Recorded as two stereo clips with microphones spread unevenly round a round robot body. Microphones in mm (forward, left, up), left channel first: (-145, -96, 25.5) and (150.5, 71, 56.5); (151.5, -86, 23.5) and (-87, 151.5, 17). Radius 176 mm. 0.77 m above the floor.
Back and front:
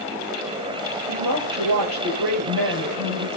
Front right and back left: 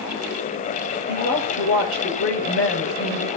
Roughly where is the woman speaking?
Ahead.